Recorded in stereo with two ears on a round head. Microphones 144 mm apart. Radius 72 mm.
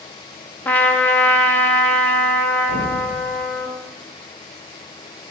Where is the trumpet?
10° left (ahead or behind), 0.6 m.